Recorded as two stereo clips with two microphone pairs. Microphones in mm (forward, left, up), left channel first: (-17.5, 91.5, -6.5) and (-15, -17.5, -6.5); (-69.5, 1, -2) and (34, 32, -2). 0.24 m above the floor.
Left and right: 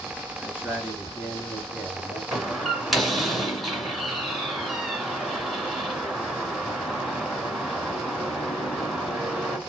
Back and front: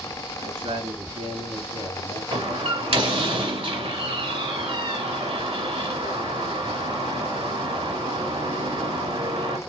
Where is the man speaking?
10° right, 3 m; by 2.2 s 5° left, 3 m.